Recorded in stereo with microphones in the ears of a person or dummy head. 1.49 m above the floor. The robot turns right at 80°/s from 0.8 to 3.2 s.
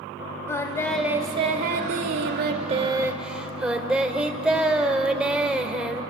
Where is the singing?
165° left, 2.0 m; by 6.0 s 5° right, 2.0 m.